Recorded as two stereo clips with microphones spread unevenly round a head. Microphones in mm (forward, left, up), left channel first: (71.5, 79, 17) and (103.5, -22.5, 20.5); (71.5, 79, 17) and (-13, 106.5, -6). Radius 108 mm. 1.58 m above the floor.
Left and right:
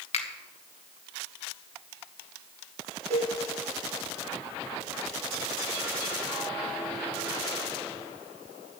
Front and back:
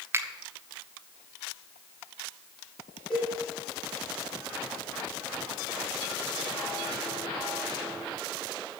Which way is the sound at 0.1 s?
95° left.